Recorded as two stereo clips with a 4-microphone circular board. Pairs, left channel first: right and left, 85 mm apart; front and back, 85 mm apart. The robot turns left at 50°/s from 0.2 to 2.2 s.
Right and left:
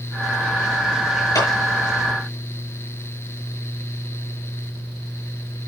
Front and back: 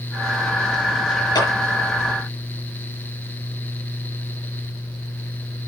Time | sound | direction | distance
1.4 | a clap | 40° right | 6 m